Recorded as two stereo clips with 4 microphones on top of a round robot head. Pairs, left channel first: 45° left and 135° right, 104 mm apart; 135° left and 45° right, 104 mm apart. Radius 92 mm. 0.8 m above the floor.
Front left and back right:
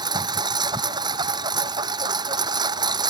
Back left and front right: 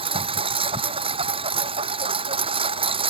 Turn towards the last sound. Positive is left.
turn(degrees=-80)